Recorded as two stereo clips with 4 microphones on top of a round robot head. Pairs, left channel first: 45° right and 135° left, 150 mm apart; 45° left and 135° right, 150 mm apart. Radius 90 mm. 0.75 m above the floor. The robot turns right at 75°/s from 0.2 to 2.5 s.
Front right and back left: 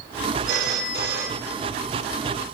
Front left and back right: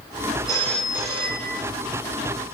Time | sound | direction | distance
0.5 | a phone ringing | 110° left | 1.1 m